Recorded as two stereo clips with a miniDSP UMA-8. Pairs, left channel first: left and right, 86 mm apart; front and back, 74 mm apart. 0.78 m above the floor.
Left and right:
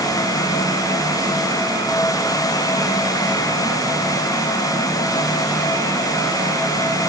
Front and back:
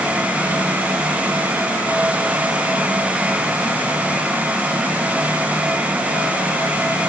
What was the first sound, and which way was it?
Only background noise.